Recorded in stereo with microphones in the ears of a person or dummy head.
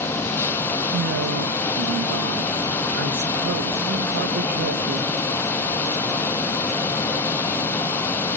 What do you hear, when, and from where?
0.9 s a man speaking: 65° right (ahead or behind), 1.6 m